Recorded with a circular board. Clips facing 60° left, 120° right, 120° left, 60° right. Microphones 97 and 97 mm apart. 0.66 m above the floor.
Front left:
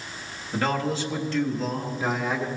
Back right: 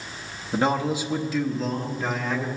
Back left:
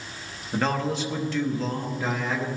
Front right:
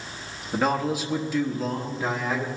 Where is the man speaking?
130° right, 1.1 m; by 2.5 s 20° left, 1.2 m.